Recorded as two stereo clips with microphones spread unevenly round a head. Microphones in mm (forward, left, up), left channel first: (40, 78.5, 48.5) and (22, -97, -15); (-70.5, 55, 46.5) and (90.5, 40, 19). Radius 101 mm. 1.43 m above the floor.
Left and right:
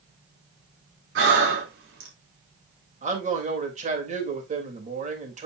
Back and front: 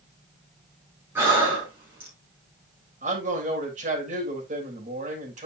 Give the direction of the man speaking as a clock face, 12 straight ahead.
2 o'clock.